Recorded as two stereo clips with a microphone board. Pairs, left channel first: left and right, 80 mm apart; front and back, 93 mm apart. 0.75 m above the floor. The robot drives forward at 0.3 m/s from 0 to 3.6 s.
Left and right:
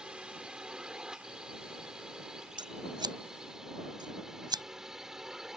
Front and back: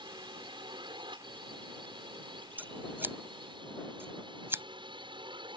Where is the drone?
170° right; by 5.6 s 175° right.